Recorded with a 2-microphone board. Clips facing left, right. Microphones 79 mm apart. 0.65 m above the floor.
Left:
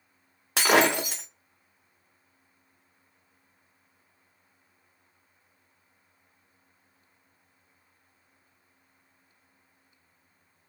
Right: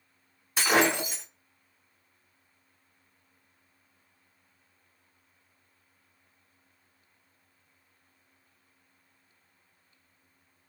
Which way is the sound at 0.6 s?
75° left (ahead or behind).